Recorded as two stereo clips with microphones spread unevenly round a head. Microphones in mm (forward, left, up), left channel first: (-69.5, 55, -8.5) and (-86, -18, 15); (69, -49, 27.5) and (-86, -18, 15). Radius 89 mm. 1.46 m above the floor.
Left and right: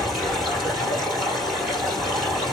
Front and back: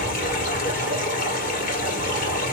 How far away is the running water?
About 2.5 m.